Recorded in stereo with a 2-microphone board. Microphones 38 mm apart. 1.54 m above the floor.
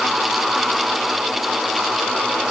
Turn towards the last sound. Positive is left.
No sound to turn to.